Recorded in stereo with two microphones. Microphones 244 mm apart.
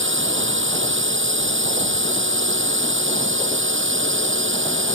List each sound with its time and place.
0.0 s a drone: 55° right (ahead or behind)